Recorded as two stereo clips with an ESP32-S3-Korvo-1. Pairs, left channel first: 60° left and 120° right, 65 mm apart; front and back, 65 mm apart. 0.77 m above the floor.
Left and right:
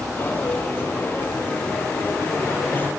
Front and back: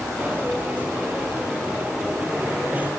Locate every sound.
0.2 s a dropped coin: 115° left, 6 m